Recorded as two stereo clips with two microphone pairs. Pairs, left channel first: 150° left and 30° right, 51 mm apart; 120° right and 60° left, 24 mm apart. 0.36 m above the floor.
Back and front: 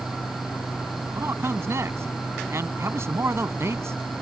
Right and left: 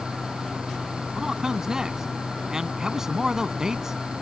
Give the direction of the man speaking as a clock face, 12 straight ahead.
12 o'clock.